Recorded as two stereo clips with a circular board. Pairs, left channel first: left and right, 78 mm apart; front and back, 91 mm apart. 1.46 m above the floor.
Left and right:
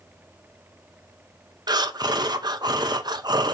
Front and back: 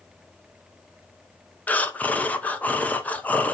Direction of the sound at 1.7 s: 70° right.